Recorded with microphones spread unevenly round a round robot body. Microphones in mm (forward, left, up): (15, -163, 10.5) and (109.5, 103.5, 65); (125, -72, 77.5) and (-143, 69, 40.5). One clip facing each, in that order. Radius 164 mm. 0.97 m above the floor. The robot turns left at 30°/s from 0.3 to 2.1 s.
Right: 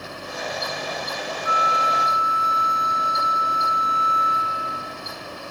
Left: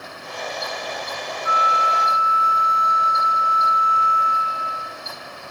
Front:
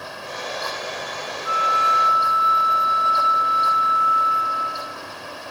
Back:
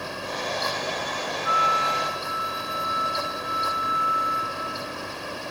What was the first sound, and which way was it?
A flute, 90° right.